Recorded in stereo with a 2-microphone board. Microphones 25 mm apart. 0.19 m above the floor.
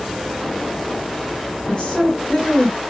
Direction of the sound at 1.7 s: 30° left (ahead or behind).